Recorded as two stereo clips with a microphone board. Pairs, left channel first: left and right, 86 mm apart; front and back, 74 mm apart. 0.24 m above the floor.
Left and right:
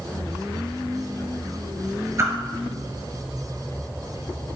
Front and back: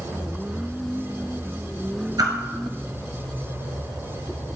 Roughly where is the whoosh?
Behind right.